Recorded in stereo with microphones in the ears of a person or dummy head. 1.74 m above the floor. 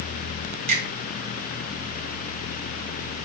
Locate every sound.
0.7 s a finger snap: 45° right (ahead or behind), 0.9 m